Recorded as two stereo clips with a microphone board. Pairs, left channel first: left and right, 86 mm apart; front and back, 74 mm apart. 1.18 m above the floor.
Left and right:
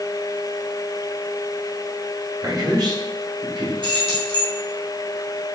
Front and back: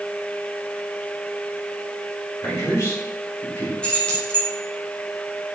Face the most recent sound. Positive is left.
turn(degrees=-75)